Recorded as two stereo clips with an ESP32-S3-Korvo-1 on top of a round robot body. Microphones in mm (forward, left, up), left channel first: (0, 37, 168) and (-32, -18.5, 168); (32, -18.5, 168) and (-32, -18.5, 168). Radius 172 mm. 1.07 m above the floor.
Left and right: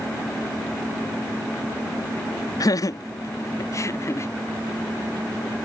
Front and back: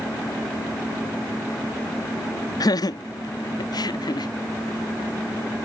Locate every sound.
2.6 s laughter: 25° left; by 4.3 s 10° left